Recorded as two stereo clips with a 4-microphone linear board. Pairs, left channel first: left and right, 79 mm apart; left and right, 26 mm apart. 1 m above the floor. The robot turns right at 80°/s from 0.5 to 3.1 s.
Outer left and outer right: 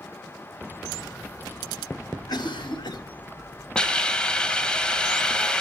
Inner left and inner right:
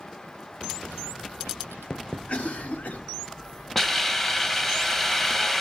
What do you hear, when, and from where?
2.3 s a cough: 55° left, 6 m; by 3.0 s 110° left, 6 m
3.8 s a hiss: 10° left (ahead or behind), 1.5 m